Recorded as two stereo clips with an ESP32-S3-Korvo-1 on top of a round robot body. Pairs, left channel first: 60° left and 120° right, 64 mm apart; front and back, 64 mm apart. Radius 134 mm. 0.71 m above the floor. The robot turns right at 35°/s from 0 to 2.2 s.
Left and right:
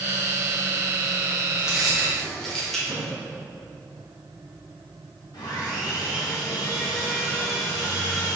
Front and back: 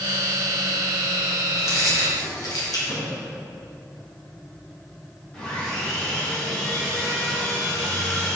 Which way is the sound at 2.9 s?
80° right.